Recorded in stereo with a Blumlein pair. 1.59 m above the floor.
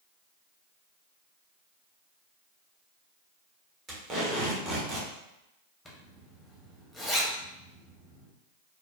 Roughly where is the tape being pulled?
Ahead right.